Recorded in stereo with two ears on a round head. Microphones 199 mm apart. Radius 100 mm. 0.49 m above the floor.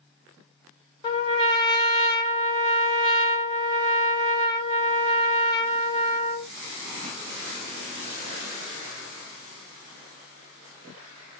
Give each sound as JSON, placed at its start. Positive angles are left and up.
{"t": 1.0, "sound": "a trumpet", "side_deg": 20, "distance_m": 1.2}